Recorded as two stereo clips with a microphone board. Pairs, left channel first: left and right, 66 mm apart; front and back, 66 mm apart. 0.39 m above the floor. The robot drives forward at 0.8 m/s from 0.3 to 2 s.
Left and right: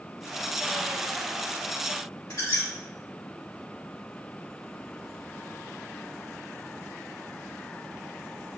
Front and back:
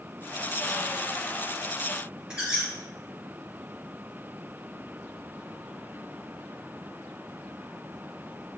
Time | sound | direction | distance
2.3 | a squeak | 105° left | 3.5 m